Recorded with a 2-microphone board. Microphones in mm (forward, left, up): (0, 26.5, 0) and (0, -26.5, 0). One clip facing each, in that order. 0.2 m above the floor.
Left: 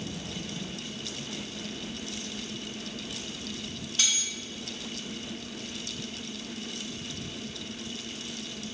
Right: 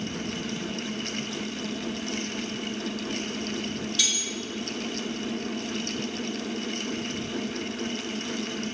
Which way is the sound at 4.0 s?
40° left (ahead or behind).